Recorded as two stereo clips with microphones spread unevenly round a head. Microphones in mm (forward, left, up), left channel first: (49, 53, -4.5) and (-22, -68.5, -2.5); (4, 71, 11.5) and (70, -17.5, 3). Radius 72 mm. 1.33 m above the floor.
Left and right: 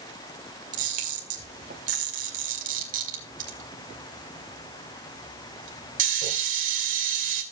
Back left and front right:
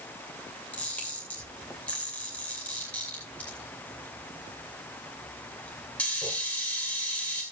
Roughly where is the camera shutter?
Behind right.